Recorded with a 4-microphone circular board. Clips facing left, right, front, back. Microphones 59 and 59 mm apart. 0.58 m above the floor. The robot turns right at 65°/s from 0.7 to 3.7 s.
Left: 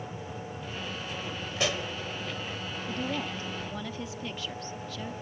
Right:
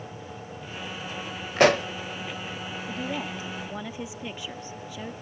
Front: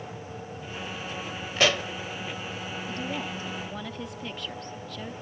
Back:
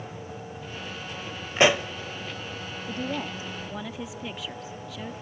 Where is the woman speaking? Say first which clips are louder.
Even, back 3 dB; 165° right, 0.8 m; by 5.1 s 115° right, 0.8 m.